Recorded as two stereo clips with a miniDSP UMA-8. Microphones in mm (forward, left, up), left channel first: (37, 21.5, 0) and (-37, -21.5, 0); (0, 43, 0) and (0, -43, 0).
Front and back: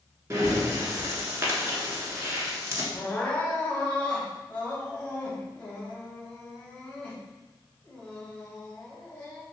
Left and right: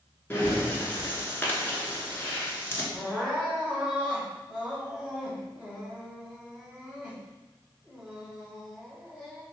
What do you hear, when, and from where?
0.3 s breathing: 155° left, 0.9 m
2.9 s crying: 20° right, 1.2 m